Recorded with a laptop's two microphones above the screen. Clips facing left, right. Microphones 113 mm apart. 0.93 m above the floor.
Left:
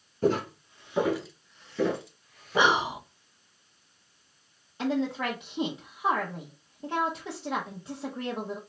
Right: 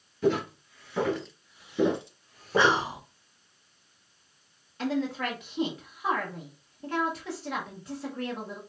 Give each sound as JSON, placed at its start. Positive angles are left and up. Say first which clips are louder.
{"t": 0.2, "sound": "footsteps", "louder": "even", "side_deg": 40, "distance_m": 1.1}
{"t": 2.6, "sound": "whispering", "louder": "even", "side_deg": 15, "distance_m": 0.7}
{"t": 4.8, "sound": "a woman speaking", "louder": "left 1 dB", "side_deg": 20, "distance_m": 0.8}